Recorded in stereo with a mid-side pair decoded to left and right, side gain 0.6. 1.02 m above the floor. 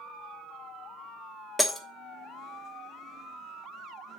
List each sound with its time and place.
1.6 s breaking glass: straight ahead, 1.1 m